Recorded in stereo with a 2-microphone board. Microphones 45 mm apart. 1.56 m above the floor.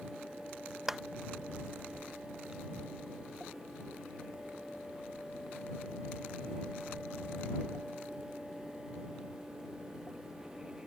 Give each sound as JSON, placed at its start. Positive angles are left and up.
{"t": 0.9, "sound": "a clap", "side_deg": -5}